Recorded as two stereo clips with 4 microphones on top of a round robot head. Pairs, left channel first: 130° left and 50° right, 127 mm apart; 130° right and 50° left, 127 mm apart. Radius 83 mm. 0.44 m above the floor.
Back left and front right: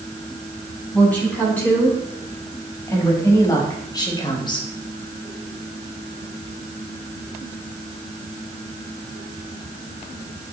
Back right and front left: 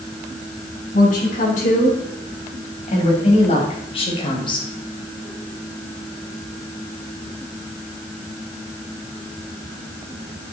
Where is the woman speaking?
150° right, 5.5 m; by 4.7 s 175° left, 2.5 m.